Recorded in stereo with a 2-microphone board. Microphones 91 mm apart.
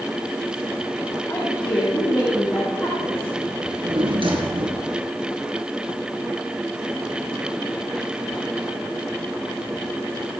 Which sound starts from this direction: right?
A drawer, at 3.6 s.